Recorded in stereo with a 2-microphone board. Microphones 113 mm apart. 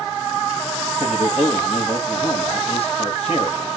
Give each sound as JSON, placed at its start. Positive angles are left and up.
{"t": 1.0, "sound": "a man speaking", "side_deg": 65, "distance_m": 4.0}